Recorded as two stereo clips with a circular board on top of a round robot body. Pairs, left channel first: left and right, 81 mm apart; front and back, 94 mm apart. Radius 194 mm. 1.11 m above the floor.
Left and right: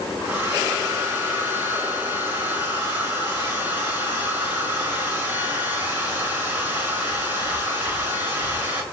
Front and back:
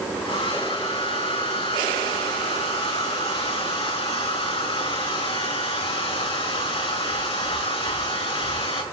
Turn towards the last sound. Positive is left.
turn(degrees=-20)